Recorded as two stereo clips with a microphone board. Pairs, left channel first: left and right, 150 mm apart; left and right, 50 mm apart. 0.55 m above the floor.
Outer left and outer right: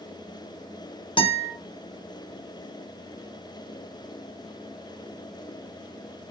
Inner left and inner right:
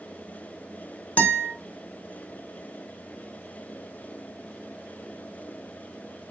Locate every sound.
1.2 s a guitar: 35° left (ahead or behind), 0.7 m